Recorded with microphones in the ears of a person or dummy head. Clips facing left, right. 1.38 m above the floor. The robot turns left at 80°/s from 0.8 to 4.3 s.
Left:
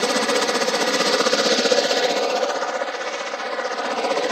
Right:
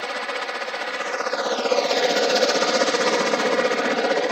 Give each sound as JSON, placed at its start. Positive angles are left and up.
{"t": 0.0, "sound": "a helicopter", "azimuth_deg": 100}